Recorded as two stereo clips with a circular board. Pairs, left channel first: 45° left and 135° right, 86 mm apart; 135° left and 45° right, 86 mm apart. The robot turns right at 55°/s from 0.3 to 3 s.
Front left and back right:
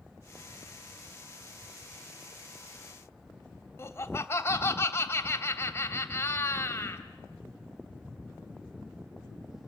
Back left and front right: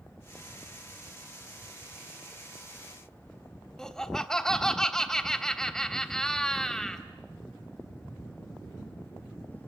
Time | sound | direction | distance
3.8 | laughter | 60° left | 1.3 m